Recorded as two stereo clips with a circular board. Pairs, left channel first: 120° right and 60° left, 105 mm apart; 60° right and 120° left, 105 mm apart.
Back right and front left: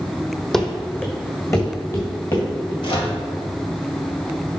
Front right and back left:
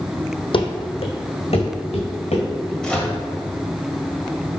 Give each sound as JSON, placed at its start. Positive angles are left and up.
{"t": 0.5, "sound": "running footsteps", "azimuth_deg": -35, "distance_m": 1.0}
{"t": 2.8, "sound": "a microwave", "azimuth_deg": -140, "distance_m": 1.6}